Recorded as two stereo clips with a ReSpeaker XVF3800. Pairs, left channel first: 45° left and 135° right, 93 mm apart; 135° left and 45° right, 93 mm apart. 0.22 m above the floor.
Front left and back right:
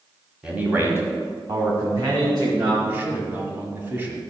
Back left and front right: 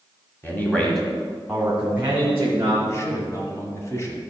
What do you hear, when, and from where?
0.4 s a man speaking: 160° left, 1.6 m; by 2.7 s 105° right, 3 m
2.8 s a man speaking: 170° left, 1.9 m